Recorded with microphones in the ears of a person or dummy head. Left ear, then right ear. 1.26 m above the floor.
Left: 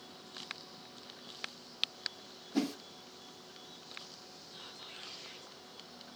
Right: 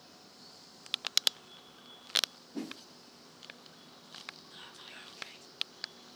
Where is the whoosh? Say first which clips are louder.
Left 7 dB; 60° left (ahead or behind), 0.6 m.